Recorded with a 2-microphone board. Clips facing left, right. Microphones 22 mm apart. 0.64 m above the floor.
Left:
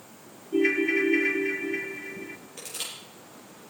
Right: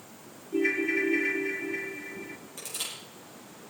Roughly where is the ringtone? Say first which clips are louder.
Left 3 dB; left.